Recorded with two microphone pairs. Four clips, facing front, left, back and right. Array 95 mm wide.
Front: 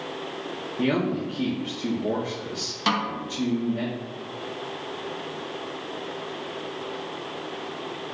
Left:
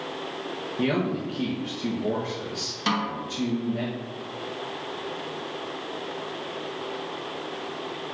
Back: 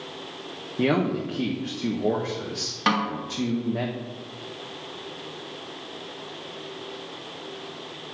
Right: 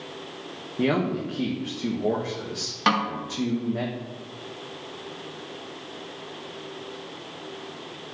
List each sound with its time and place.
0.8 s a man speaking: 140° right, 1.4 m
2.9 s a snare drum: 115° right, 2 m